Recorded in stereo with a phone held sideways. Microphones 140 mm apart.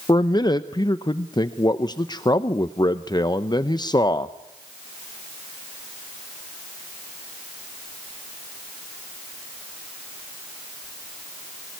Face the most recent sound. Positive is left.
turn(degrees=30)  # may be behind; listen again after turning